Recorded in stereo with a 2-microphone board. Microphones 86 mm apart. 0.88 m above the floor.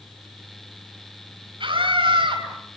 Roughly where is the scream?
Right.